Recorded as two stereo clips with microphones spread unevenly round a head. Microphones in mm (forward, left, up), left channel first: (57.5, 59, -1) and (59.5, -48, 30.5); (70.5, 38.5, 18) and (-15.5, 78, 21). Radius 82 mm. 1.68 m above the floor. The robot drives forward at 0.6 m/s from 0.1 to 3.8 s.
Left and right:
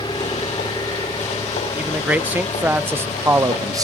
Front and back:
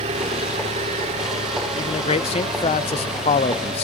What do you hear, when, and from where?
0.0 s an engine running: 165° left; by 3.8 s 170° left
1.8 s a man speaking: 15° right; by 3.8 s 45° right